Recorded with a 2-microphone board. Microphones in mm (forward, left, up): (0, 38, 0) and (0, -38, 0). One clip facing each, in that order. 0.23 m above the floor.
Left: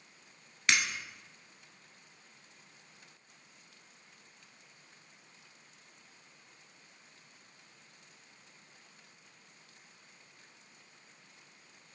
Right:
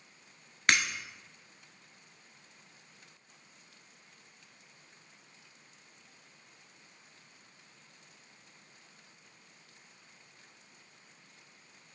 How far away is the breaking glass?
About 0.9 m.